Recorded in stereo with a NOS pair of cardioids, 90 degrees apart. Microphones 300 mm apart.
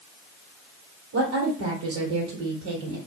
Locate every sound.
1.1 s a woman speaking: 55° right, 1.5 m